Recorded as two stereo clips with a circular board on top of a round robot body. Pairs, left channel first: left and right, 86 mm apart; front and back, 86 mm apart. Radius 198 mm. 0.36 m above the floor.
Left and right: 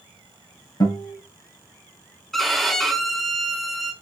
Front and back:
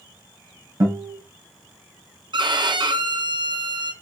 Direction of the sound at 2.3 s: 175° left.